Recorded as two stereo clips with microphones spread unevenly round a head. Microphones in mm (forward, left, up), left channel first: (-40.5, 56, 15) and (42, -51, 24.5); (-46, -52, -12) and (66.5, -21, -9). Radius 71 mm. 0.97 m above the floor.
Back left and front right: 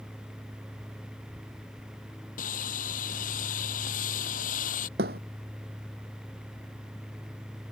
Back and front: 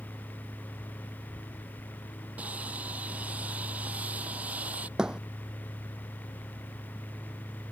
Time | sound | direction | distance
2.4 | sawing | 95° left | ?
5.0 | a thud | 70° right | ?